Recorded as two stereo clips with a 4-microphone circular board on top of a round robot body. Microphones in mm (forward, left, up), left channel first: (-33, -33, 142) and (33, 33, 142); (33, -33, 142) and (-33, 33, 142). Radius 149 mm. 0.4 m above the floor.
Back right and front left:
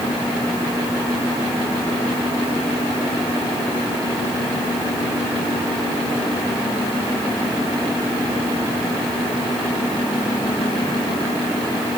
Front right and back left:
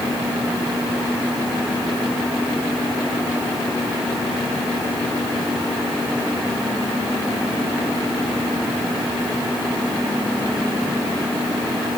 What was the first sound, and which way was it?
Only background noise.